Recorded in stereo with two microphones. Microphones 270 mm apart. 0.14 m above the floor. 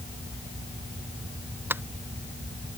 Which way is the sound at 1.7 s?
10° right (ahead or behind).